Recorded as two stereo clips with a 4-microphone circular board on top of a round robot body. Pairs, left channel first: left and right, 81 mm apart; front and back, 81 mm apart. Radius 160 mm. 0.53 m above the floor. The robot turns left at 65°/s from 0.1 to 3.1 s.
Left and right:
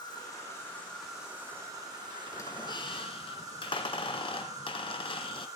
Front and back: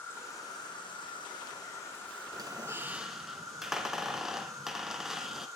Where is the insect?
65° left, 6.5 m; by 5.6 s 130° right, 6.5 m.